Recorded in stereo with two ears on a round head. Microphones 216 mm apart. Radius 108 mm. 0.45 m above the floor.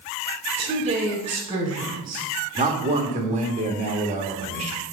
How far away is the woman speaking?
About 2 m.